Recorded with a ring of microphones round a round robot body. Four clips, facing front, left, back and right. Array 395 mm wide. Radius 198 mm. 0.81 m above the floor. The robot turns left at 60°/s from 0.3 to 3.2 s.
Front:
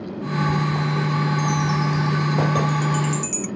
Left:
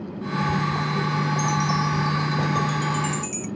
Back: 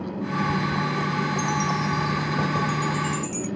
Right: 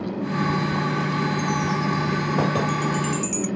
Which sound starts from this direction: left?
A chime, at 1.4 s.